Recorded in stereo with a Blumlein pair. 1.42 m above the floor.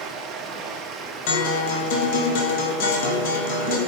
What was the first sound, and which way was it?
Running water, 25° right.